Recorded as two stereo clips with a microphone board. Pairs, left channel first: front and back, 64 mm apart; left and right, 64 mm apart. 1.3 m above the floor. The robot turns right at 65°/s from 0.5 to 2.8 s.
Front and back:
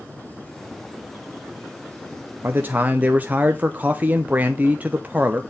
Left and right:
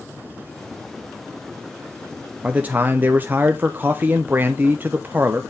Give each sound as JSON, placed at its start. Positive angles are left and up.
{"t": 2.4, "sound": "a man speaking", "azimuth_deg": -155, "distance_m": 0.5}